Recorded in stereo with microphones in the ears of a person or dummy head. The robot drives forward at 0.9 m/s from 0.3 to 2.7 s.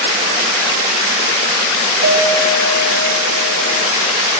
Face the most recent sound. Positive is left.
turn(degrees=-45)  # may be behind; listen again after turning